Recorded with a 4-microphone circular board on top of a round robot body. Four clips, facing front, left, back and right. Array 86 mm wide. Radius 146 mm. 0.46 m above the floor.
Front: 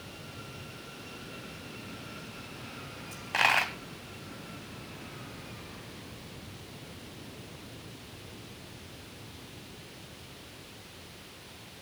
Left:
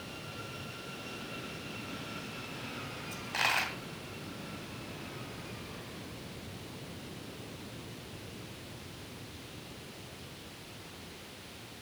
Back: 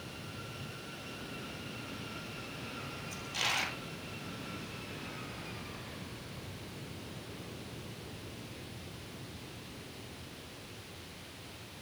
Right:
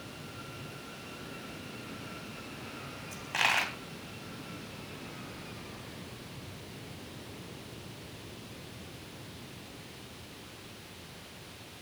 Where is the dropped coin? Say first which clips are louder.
Right 2 dB, front 10 dB; 5° right, 2 m.